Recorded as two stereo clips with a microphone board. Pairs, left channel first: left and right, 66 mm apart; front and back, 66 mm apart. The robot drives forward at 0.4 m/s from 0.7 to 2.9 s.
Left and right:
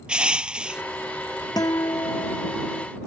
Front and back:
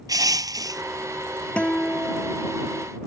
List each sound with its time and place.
0.1 s crushing: 165° right
1.6 s a guitar: 75° left; by 2.9 s 80° left